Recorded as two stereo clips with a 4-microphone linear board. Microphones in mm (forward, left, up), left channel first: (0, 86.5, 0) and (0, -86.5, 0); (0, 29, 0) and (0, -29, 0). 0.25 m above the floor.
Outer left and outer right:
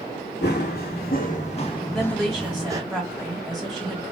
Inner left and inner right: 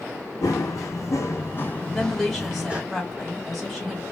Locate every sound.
0.4 s running footsteps: 75° left (ahead or behind), 1.1 m; by 2.8 s 20° right (ahead or behind), 0.8 m
1.9 s a woman speaking: centre (ahead or behind), 1.8 m